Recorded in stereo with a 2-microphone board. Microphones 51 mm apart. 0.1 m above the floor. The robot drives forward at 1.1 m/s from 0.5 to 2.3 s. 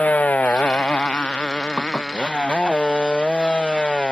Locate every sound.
0.0 s a motorcycle: 30° left (ahead or behind); by 4.1 s 20° left (ahead or behind)
1.8 s dishes clattering: 30° left (ahead or behind); by 2.1 s 25° left (ahead or behind)